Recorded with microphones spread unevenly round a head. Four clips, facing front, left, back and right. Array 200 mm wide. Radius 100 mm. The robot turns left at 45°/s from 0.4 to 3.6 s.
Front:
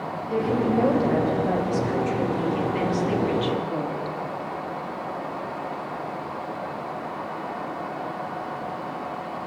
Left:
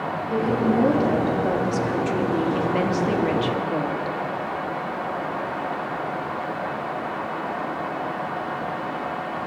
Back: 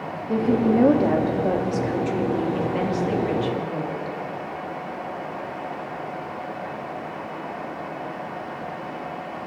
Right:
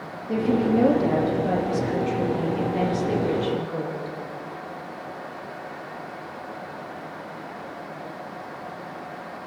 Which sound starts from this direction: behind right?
A woman speaking, at 0.3 s.